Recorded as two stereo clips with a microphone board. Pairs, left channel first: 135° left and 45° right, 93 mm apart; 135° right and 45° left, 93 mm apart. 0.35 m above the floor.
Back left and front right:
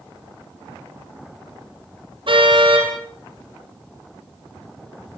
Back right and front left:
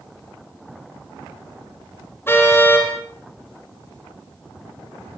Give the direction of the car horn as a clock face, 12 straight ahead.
2 o'clock.